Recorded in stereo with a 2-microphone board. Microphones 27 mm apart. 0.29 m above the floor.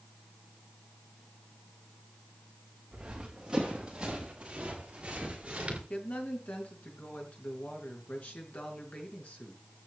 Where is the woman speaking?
65° left (ahead or behind), 4.5 m.